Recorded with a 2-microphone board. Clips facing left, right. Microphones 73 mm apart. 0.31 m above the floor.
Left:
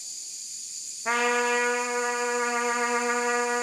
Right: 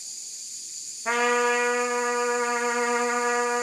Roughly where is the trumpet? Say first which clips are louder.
Right 2 dB; centre.